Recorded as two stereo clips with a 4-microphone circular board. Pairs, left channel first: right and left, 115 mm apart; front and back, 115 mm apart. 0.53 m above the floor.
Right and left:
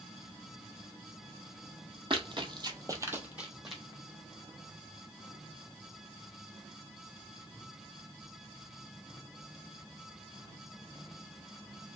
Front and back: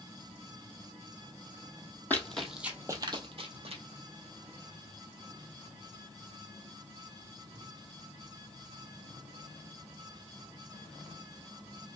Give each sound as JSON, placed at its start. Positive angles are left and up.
{"t": 2.1, "sound": "running footsteps", "azimuth_deg": 70, "distance_m": 0.8}